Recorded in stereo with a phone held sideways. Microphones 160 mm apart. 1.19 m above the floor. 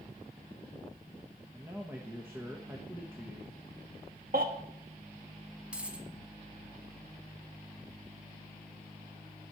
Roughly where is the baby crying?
Right.